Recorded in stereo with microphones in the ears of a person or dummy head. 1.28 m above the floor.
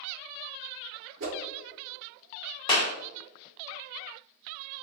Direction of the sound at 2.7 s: 20° left (ahead or behind).